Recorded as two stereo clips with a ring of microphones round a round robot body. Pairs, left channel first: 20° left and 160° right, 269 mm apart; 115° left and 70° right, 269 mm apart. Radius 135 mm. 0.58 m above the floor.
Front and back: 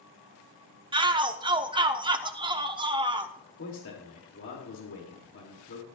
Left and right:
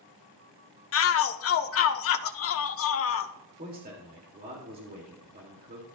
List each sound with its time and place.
0.9 s a shout: 135° left, 0.9 m
3.6 s a man speaking: 15° right, 2.5 m